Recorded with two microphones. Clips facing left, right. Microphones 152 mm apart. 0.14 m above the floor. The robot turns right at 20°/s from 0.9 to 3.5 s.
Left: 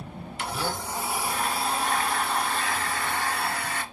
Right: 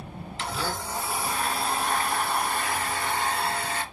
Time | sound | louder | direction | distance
0.4 | a blender | left 1 dB | 165° left | 2 m